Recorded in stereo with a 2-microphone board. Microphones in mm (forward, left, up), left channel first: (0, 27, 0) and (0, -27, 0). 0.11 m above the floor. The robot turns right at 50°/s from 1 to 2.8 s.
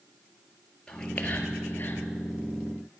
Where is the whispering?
15° left (ahead or behind), 1.7 m; by 2.1 s 50° left (ahead or behind), 1.7 m.